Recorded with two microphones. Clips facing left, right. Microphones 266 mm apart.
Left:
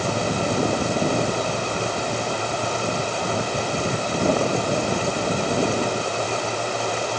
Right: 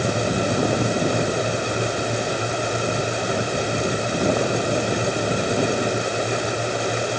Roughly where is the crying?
I don't hear crying.